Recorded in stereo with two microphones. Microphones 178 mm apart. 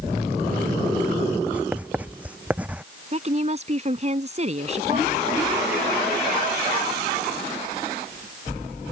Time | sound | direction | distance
1.5 | writing | 5° right (ahead or behind) | ?
3.1 | a woman speaking | 40° right (ahead or behind) | ?